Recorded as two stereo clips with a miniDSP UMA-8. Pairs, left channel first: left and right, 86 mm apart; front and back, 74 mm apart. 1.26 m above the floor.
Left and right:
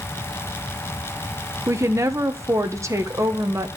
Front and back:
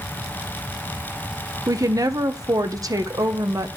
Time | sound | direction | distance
1.7 | a woman speaking | 145° right | 1.1 m